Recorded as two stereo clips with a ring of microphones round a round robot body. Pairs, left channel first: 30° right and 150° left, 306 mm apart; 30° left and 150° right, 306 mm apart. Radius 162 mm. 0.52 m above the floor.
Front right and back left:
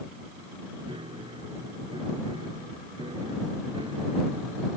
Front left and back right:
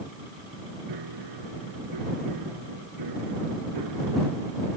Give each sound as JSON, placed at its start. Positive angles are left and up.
{"t": 0.9, "sound": "a piano", "azimuth_deg": -135}